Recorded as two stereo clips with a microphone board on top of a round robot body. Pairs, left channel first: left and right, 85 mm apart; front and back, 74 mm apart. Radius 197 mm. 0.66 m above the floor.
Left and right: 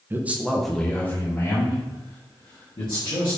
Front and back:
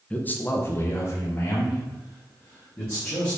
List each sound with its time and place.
0.1 s a man speaking: 50° right, 0.8 m; by 3.4 s 55° left, 1.8 m